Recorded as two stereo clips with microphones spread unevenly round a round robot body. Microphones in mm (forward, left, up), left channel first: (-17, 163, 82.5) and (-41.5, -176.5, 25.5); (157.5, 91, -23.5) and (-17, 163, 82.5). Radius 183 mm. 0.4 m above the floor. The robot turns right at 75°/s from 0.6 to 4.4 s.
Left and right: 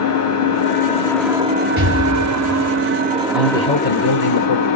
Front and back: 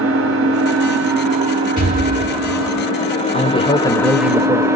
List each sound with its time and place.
0.0 s an engine running: 135° left, 1.1 m; by 4.8 s 60° left, 1.1 m
1.8 s an explosion: 40° right, 1.5 m; by 2.9 s 45° left, 1.5 m
3.3 s a man speaking: 15° right, 1.2 m; by 4.7 s 65° left, 1.2 m